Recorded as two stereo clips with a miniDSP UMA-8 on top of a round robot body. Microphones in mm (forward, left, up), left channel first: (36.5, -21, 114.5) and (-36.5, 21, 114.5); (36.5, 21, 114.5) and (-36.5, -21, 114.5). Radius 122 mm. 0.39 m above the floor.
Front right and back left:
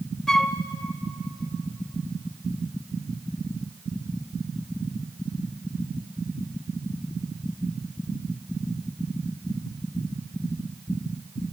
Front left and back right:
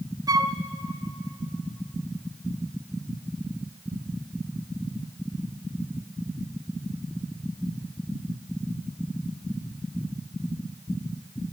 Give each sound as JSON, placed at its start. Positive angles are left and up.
{"t": 0.3, "sound": "a flute", "azimuth_deg": -110, "distance_m": 1.0}